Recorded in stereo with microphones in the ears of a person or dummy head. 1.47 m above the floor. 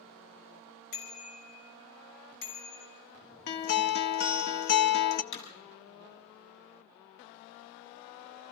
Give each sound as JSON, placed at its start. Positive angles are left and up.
{"t": 0.9, "sound": "a bicycle bell", "side_deg": 65, "distance_m": 5.5}
{"t": 3.5, "sound": "a guitar", "side_deg": 50, "distance_m": 0.8}
{"t": 5.3, "sound": "hammering", "side_deg": 70, "distance_m": 8.5}